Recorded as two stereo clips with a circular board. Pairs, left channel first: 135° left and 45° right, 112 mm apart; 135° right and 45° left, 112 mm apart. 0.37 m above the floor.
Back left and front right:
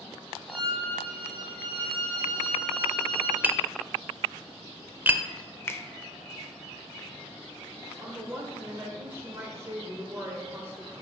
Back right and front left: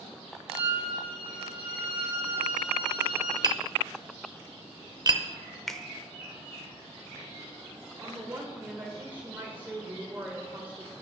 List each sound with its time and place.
0.5 s a violin: straight behind, 4.5 m
3.4 s tapping: 20° left, 0.6 m
5.7 s a finger snap: 145° left, 0.6 m
8.0 s a woman speaking: 10° right, 1.2 m